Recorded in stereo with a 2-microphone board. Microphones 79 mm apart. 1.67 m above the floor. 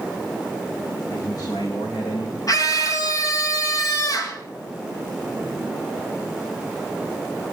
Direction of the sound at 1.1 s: 55° left (ahead or behind).